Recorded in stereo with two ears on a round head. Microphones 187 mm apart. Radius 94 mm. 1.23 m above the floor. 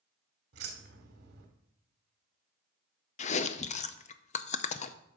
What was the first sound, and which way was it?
Keys jangling, 60° right (ahead or behind).